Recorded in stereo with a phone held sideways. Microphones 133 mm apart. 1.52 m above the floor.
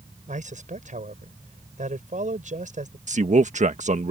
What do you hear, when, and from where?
0.3 s a man speaking: 70° right (ahead or behind)
3.1 s a man speaking: 65° right (ahead or behind)